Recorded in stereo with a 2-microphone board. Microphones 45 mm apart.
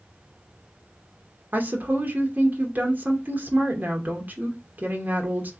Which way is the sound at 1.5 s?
45° right (ahead or behind).